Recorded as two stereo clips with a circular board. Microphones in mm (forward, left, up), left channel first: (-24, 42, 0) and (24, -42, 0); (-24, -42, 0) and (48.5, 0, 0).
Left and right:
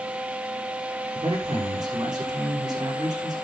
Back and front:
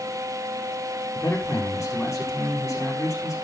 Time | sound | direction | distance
1.1 | a man speaking | 105° right | 6.5 m